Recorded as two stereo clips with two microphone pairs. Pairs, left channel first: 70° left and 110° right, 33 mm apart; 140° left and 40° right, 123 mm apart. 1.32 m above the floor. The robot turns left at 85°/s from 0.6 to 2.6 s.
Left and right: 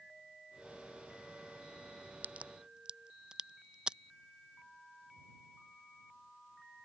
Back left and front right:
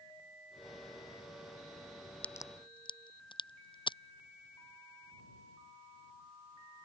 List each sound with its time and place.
2.2 s a crack: 140° right; by 4.0 s 175° right